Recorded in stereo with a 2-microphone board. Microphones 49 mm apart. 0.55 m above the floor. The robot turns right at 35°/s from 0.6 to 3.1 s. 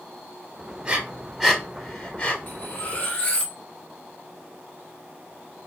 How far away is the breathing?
About 0.9 m.